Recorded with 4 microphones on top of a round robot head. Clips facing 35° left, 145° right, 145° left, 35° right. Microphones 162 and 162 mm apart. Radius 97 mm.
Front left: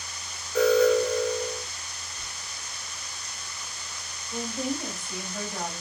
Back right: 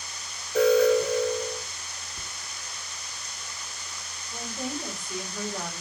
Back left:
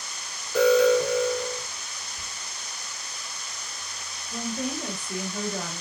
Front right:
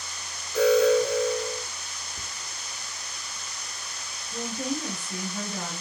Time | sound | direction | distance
0.6 | an alarm | 135° left | 3 m
2.2 | whispering | 95° right | 0.5 m
4.3 | a woman speaking | 115° left | 3 m